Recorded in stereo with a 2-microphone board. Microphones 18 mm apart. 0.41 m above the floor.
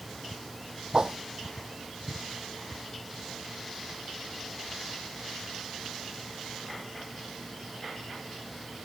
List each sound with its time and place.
0.9 s a whoosh: 40° right (ahead or behind)